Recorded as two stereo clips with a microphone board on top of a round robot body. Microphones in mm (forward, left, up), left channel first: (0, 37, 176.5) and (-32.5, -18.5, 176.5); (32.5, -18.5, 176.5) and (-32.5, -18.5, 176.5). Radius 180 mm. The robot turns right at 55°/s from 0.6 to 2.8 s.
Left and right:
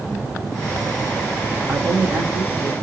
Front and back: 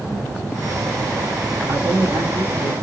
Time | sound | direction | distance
1.7 | a man speaking | 175° right | 4 m